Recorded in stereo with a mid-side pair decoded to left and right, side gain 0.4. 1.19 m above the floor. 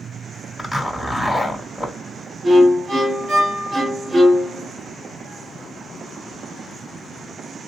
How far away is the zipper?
About 1.8 m.